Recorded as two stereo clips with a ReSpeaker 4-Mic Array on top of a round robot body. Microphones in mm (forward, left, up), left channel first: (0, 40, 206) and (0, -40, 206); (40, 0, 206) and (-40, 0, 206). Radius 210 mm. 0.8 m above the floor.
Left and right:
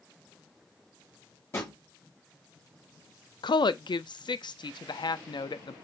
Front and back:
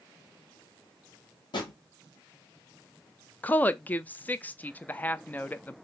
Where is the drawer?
30° left, 1.0 m.